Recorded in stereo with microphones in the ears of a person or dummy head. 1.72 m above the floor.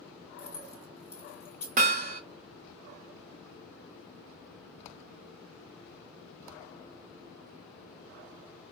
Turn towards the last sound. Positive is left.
turn(degrees=-40)  # may be behind; listen again after turning